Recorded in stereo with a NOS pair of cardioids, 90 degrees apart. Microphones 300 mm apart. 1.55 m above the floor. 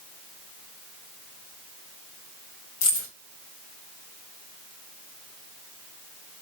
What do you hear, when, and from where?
2.8 s keys jangling: 70° left, 1.5 m